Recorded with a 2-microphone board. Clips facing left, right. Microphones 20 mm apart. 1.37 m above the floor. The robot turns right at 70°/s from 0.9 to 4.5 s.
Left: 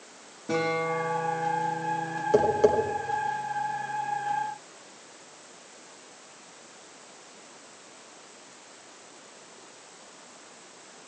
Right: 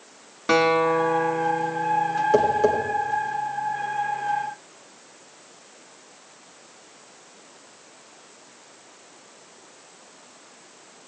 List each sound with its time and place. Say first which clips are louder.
0.5 s a guitar: right 8 dB; 85° right, 1.6 m; by 2.2 s 10° left, 1.6 m
2.3 s tapping: right 1 dB; 20° right (ahead or behind), 3 m; by 2.8 s 10° left (ahead or behind), 3 m